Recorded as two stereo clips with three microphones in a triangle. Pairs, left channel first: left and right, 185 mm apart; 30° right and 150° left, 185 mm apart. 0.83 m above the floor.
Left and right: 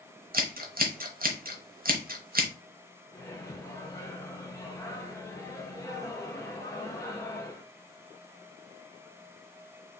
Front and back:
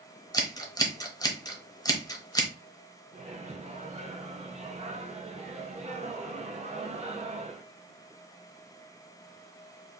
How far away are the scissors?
About 0.8 m.